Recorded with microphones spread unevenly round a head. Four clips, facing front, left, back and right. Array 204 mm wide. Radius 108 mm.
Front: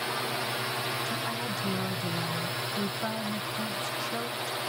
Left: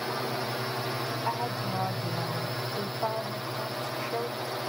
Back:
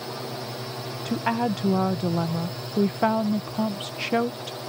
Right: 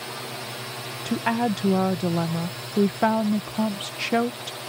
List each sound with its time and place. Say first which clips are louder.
0.0 s a drone: left 4 dB, front 1 dB; 105° left
1.1 s a woman speaking: right 12 dB, back 8 dB; 115° right